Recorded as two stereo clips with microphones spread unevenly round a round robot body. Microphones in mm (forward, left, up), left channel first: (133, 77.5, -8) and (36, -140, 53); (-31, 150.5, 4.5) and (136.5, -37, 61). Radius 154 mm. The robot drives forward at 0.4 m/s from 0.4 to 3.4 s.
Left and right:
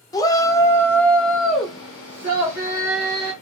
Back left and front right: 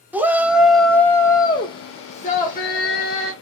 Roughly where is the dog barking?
I don't hear a dog barking.